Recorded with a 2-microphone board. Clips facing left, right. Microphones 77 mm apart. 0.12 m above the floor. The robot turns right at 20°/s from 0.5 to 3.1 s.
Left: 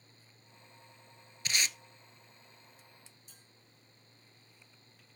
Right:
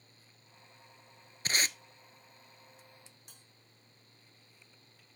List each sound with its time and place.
1.4 s tape being pulled: 40° right (ahead or behind), 0.6 m; by 1.8 s 45° right (ahead or behind), 0.6 m
3.3 s a bell: 65° right (ahead or behind), 6 m